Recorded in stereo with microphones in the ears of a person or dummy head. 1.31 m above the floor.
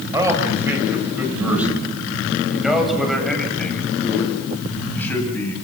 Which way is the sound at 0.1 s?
20° right (ahead or behind).